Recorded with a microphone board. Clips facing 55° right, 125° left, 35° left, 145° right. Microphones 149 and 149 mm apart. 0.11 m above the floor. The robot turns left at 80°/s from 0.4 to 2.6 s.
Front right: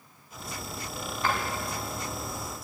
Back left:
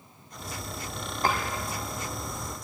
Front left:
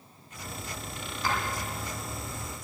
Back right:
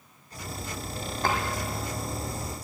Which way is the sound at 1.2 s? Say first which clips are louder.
Back left 2 dB, back right 3 dB; straight behind.